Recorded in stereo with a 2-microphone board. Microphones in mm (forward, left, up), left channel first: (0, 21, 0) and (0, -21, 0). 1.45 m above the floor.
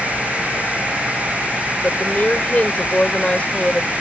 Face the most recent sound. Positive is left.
turn(degrees=25)  # may be behind; listen again after turning